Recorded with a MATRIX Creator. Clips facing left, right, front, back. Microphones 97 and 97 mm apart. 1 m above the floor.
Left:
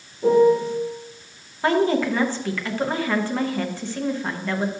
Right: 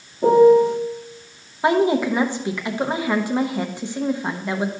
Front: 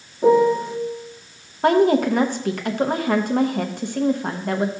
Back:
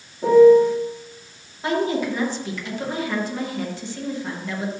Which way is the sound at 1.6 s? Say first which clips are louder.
Right 2 dB, front 7 dB; 20° right.